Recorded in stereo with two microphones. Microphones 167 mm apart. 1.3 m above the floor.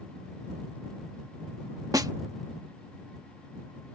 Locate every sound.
1.9 s a snare drum: 20° right (ahead or behind)